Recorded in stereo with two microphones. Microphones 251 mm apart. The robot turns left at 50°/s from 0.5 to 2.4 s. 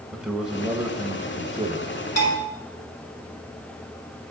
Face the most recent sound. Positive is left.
turn(degrees=75)  # may be behind; listen again after turning